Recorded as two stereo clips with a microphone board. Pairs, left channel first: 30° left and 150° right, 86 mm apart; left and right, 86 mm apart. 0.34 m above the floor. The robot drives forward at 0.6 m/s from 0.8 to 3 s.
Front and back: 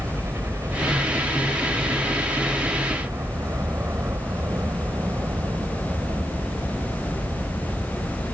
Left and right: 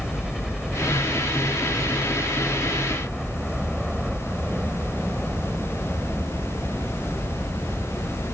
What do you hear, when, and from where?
0.0 s a helicopter: 175° right